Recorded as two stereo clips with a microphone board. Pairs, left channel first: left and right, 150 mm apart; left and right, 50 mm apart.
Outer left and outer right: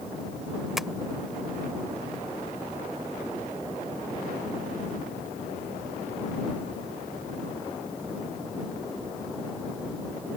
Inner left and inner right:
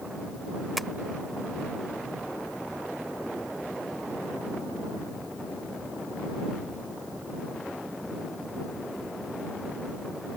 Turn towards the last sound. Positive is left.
turn(degrees=0)  # may be behind; listen again after turning